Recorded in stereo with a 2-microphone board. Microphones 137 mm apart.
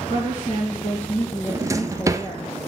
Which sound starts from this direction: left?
A woman speaking, at 0.1 s.